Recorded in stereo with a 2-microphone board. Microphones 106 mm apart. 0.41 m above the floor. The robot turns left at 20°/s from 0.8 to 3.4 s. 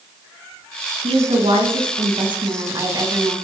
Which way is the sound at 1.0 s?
100° right.